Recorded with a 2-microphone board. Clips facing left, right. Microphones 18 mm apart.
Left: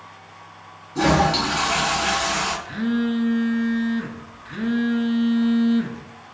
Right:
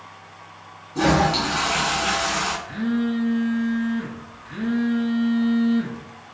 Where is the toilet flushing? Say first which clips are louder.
Left 1 dB; 5° left (ahead or behind), 1.3 m.